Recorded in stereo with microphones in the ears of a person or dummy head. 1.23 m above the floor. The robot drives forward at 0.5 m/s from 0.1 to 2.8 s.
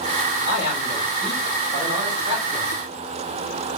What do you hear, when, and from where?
0.5 s a man speaking: 40° right (ahead or behind), 2 m; by 2.8 s 25° right (ahead or behind), 3 m